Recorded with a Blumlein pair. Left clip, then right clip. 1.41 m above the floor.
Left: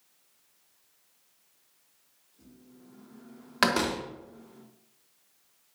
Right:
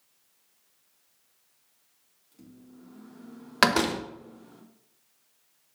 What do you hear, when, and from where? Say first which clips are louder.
2.3 s a microwave: right 4 dB; 55° right, 1.7 m
3.6 s a door slam: right 3 dB; 15° right, 0.8 m